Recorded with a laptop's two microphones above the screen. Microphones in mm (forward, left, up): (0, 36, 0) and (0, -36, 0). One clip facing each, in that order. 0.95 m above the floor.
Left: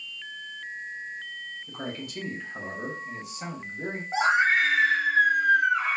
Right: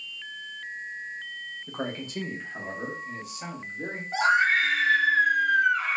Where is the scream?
20° left (ahead or behind), 0.8 m.